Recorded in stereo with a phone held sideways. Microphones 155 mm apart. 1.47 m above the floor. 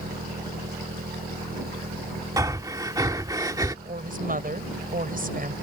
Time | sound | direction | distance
0.0 | an engine running | 75° right (ahead or behind) | ?
2.4 | breathing | 20° right (ahead or behind) | ?
3.9 | a woman speaking | 60° right (ahead or behind) | ?